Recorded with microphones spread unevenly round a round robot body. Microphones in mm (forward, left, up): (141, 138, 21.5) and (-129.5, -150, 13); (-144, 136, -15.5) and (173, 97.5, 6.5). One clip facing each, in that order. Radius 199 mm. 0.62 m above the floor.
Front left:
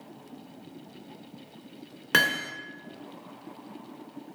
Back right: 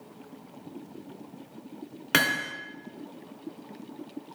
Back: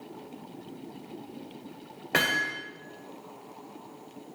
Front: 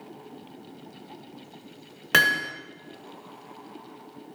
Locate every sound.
2.1 s hammering: 45° right, 1.7 m